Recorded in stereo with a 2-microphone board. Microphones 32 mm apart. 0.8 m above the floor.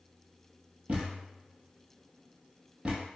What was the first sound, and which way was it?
A thud, 45° right (ahead or behind).